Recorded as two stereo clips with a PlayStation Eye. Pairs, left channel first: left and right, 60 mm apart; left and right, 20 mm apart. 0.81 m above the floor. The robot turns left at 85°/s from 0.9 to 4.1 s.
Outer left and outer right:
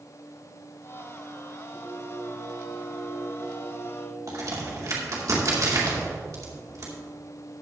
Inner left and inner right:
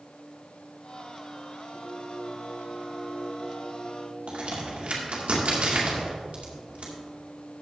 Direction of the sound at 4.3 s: 70° right (ahead or behind).